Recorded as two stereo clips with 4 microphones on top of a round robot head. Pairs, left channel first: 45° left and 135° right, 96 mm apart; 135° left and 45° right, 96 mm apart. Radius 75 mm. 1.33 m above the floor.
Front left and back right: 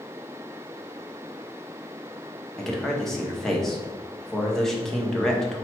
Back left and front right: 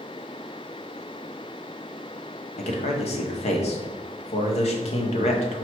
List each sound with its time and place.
2.6 s a man speaking: 130° left, 0.8 m